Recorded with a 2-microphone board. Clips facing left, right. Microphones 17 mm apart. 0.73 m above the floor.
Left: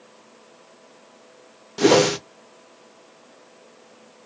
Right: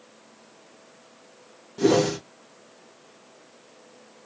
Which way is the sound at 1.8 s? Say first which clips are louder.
Left 4 dB; 55° left (ahead or behind).